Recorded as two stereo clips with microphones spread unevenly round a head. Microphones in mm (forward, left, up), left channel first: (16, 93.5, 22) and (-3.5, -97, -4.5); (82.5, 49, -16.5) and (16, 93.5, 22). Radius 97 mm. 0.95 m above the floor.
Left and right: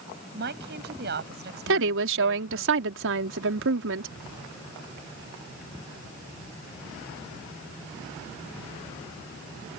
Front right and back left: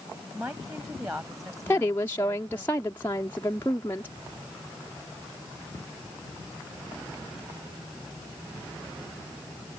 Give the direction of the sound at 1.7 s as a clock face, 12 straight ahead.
3 o'clock.